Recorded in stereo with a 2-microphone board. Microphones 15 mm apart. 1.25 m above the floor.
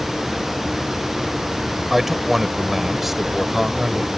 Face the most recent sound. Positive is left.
turn(degrees=-15)  # may be behind; listen again after turning